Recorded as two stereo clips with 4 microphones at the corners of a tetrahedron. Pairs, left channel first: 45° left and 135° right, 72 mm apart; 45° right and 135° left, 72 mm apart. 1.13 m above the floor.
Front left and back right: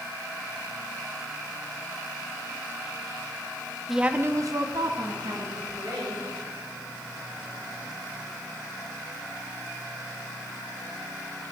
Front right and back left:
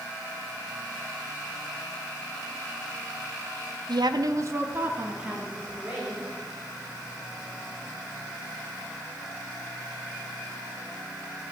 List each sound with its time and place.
3.9 s a woman speaking: 135° left, 0.8 m; by 6.3 s 145° right, 3.5 m